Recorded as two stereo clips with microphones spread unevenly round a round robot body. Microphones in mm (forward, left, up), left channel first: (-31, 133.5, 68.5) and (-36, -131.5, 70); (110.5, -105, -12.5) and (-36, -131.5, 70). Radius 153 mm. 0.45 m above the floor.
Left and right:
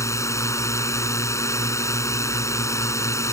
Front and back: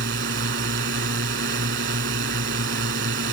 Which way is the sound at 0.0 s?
170° left.